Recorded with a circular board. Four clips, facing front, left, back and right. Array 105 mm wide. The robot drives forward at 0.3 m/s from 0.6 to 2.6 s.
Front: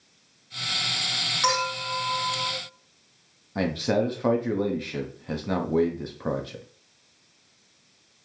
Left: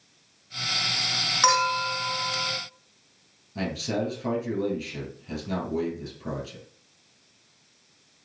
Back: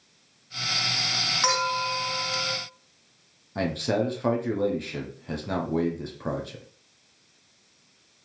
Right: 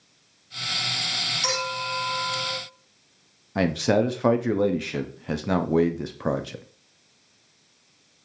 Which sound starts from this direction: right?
A man speaking, at 3.5 s.